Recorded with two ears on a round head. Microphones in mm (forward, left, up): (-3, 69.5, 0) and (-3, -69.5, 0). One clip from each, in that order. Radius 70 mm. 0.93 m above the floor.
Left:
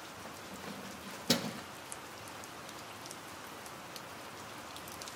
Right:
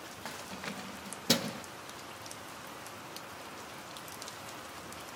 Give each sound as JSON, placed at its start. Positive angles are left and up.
{"t": 0.2, "sound": "keys jangling", "side_deg": -65, "distance_m": 0.6}